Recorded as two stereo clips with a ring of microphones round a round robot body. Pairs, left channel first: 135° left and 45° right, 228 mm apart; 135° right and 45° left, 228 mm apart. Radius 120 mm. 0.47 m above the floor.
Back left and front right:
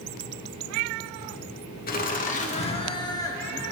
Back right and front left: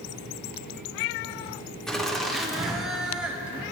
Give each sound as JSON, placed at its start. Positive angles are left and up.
{"t": 1.9, "sound": "laughter", "azimuth_deg": 140, "distance_m": 1.7}